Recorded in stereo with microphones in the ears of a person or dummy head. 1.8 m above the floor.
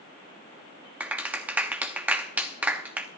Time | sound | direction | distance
1.0 | a clap | 5° right (ahead or behind) | 0.8 m